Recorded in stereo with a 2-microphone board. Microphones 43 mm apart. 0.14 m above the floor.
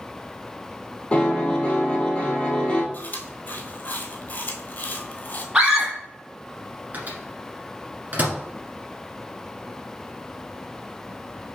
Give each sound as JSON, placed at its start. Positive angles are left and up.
{"t": 1.1, "sound": "a piano", "side_deg": 25, "distance_m": 1.0}
{"t": 2.9, "sound": "chewing", "side_deg": 45, "distance_m": 1.2}
{"t": 5.5, "sound": "a scream", "side_deg": -20, "distance_m": 1.8}
{"t": 6.9, "sound": "a microwave", "side_deg": -40, "distance_m": 1.5}